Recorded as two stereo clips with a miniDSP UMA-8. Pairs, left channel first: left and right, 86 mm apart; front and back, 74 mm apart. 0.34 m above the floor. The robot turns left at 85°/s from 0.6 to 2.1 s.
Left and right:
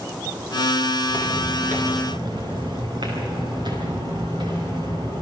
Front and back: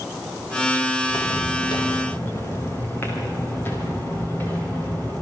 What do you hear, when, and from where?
1.0 s footsteps: 35° left, 8 m; by 5.2 s 65° right, 9.5 m